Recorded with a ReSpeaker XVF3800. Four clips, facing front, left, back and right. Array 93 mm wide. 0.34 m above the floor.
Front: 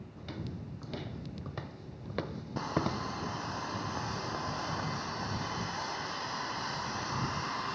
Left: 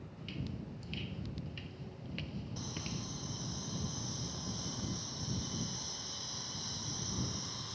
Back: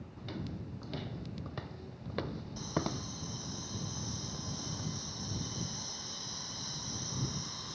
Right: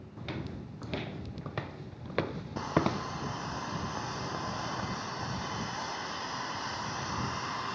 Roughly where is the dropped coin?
I don't hear a dropped coin.